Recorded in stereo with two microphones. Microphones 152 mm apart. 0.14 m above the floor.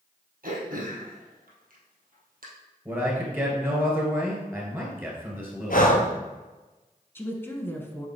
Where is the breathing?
70° left (ahead or behind), 1.0 m.